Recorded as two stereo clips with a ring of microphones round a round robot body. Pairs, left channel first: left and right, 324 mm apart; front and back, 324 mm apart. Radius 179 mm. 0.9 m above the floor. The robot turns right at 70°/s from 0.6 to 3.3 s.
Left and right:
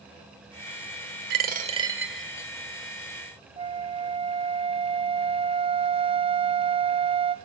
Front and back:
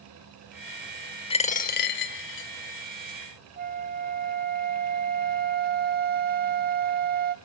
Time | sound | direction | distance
1.3 | a dropped coin | 60° right | 0.6 m
3.6 | a flute | 150° right | 0.8 m